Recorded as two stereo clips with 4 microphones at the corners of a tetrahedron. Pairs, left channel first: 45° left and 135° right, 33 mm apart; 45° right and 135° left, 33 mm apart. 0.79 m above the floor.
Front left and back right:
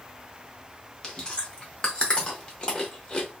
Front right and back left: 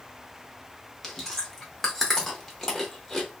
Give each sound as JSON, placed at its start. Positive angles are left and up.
{"t": 1.0, "sound": "chewing", "azimuth_deg": 25, "distance_m": 0.9}